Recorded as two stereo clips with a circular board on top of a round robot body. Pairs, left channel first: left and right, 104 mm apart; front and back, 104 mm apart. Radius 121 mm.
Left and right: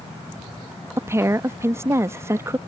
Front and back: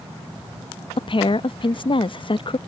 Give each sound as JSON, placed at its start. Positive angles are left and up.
{"t": 1.0, "sound": "a woman speaking", "azimuth_deg": -25}